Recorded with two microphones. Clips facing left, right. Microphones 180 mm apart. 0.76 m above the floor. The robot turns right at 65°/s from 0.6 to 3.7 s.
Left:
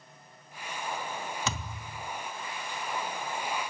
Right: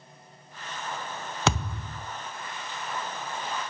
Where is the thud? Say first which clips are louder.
Right 8 dB; 80° right, 0.7 m; by 2.1 s 40° right, 0.7 m.